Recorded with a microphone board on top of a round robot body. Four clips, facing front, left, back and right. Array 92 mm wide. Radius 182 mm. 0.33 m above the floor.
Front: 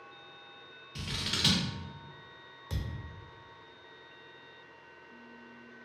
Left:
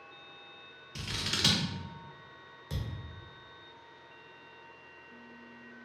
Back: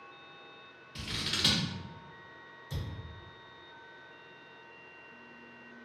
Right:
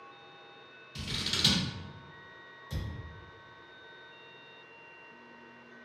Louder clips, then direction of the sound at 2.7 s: Left 1 dB, front 1 dB; 30° left.